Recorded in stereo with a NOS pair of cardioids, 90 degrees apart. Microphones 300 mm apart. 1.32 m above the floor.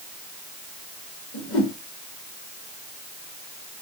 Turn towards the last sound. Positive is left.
turn(degrees=50)